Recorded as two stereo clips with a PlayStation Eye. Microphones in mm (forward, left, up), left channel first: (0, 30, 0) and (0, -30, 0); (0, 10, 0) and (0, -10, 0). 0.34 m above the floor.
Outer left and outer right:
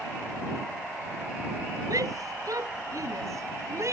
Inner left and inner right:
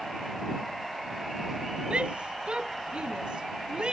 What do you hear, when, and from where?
1.9 s a shout: 70° right (ahead or behind); by 3.9 s 50° right (ahead or behind)